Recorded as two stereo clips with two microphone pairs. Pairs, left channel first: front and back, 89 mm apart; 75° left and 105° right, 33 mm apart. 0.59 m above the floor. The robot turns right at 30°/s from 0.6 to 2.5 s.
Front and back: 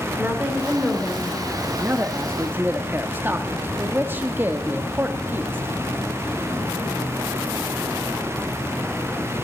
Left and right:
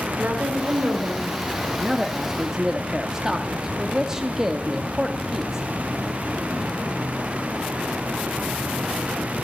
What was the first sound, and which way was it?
A woman speaking, 110° right.